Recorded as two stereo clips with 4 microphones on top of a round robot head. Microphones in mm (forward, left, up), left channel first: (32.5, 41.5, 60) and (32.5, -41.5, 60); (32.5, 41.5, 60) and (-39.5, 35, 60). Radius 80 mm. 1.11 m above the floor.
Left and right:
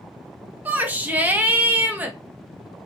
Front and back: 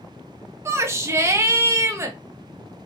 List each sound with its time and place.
0.7 s a shout: 150° right, 0.8 m